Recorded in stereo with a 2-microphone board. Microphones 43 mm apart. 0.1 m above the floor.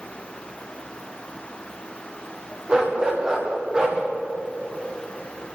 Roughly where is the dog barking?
Right.